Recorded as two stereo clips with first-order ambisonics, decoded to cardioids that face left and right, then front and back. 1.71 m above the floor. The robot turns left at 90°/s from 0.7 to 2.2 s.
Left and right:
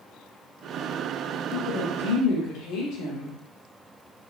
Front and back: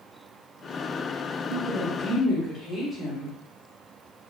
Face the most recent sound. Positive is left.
turn(degrees=70)